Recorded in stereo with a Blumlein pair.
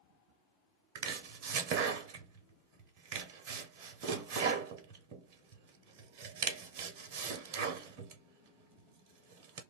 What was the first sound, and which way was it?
Chopping, 45° right.